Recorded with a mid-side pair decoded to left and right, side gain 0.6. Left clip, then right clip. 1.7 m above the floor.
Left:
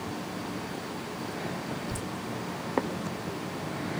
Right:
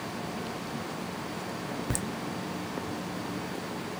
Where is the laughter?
65° right, 0.7 m.